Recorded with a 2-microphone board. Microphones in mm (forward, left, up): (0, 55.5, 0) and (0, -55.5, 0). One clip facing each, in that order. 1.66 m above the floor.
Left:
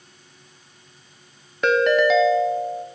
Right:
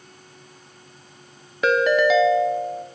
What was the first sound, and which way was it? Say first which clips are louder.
A ringtone: even; centre (ahead or behind).